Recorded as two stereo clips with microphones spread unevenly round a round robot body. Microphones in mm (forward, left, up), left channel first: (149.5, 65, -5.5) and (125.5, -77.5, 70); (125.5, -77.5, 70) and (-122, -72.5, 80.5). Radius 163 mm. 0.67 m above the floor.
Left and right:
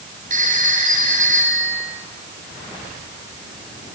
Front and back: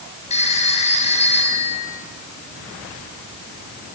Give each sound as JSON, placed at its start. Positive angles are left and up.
{"t": 0.3, "sound": "a phone ringing", "azimuth_deg": -65, "distance_m": 7.0}